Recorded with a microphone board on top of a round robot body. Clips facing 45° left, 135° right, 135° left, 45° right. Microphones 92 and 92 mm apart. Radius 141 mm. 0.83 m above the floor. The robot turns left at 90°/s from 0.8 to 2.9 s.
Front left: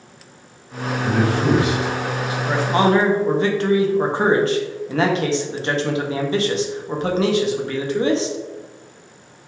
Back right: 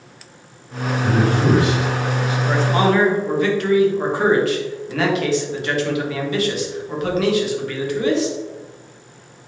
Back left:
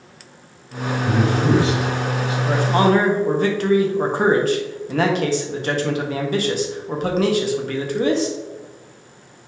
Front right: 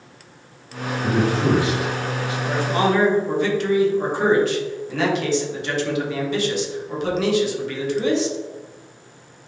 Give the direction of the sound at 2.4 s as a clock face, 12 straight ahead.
7 o'clock.